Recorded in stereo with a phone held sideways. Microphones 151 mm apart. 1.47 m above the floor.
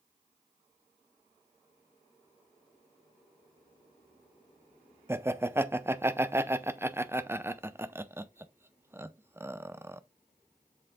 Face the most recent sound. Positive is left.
turn(degrees=-15)  # may be behind; listen again after turning